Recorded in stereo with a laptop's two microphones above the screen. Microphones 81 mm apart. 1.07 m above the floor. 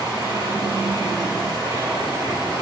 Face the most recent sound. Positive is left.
turn(degrees=-80)